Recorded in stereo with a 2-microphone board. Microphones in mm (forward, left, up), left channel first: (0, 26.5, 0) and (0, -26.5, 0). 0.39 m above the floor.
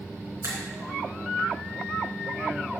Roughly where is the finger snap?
Right.